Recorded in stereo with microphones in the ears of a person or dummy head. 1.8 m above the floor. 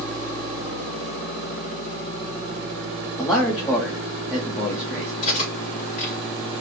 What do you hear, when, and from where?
3.2 s a man speaking: 15° left (ahead or behind), 0.9 m
5.2 s cutlery clinking: 50° left (ahead or behind), 1.8 m